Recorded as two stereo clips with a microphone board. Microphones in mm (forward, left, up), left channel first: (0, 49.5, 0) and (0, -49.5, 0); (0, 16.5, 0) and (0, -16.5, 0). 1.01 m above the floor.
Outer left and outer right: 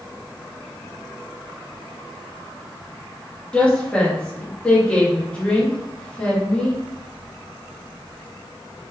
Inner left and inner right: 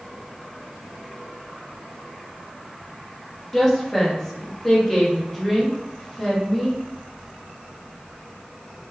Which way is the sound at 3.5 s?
15° left (ahead or behind).